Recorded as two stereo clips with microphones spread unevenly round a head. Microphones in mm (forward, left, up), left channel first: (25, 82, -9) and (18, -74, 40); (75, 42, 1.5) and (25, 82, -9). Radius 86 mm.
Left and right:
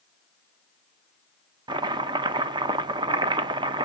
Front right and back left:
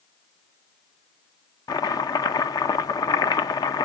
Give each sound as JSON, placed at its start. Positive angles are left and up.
{"t": 1.7, "sound": "chopping", "azimuth_deg": -40, "distance_m": 0.6}